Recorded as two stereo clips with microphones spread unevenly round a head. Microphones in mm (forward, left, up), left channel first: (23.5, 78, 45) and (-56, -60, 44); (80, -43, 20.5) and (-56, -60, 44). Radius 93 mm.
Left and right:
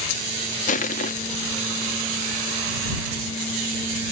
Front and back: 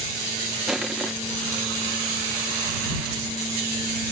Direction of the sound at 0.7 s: 100° left.